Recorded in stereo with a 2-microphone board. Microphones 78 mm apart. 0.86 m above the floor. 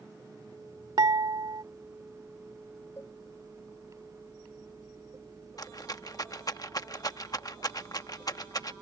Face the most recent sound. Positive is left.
turn(degrees=50)  # may be behind; listen again after turning